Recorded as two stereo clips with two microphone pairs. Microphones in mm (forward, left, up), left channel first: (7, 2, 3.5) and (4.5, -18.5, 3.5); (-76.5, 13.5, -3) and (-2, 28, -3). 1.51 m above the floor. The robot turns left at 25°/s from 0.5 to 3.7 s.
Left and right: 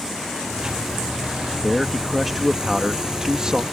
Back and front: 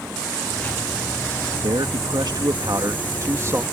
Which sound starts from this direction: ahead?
A man speaking, at 1.6 s.